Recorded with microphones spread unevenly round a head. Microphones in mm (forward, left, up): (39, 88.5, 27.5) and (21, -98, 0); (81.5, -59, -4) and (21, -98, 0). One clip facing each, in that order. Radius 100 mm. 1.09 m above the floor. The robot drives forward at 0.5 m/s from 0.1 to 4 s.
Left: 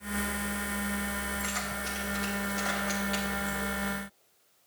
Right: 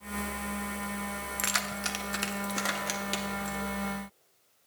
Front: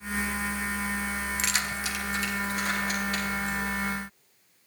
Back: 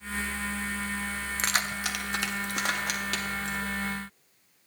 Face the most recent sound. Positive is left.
turn(degrees=-150)